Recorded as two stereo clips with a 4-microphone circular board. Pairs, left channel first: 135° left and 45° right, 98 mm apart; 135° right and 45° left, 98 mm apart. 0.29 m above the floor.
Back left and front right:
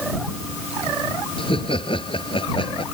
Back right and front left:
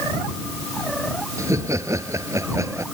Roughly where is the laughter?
Left.